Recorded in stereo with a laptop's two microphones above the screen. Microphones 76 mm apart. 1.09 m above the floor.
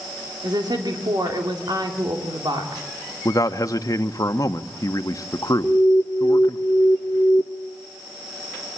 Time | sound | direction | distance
0.4 | a woman speaking | 65° right (ahead or behind) | 2.5 m
3.2 | a man speaking | 50° left (ahead or behind) | 1.3 m
5.6 | an alarm | 20° left (ahead or behind) | 1.1 m